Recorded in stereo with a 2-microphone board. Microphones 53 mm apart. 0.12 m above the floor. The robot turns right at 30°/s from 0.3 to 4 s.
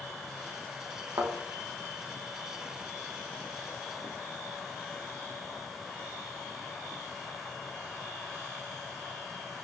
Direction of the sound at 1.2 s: 75° right (ahead or behind).